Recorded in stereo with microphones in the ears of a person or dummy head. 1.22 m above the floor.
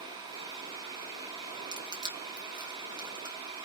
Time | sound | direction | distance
1.7 | crushing | 15° right (ahead or behind) | 1.1 m